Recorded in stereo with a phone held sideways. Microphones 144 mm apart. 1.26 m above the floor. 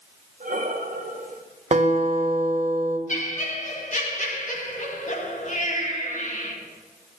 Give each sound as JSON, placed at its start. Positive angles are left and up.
{"t": 0.4, "sound": "breathing", "side_deg": -70, "distance_m": 1.5}
{"t": 1.7, "sound": "a guitar", "side_deg": -55, "distance_m": 1.5}
{"t": 3.1, "sound": "laughter", "side_deg": 60, "distance_m": 2.0}